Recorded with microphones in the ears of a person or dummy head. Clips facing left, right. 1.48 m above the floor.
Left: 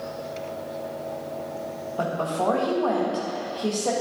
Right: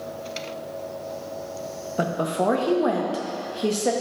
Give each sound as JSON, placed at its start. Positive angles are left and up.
{"t": 2.0, "sound": "a woman speaking", "side_deg": -20, "distance_m": 0.6}